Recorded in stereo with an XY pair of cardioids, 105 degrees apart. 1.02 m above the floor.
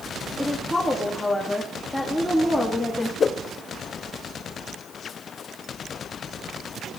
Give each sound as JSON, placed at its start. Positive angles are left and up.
{"t": 0.4, "sound": "a woman speaking", "azimuth_deg": 10, "distance_m": 2.0}
{"t": 3.2, "sound": "a whoosh", "azimuth_deg": 40, "distance_m": 0.7}